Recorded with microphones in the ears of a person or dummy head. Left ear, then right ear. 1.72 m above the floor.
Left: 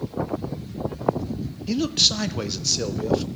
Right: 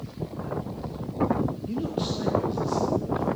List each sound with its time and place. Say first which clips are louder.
1.7 s a man speaking: left 10 dB; 60° left (ahead or behind), 0.7 m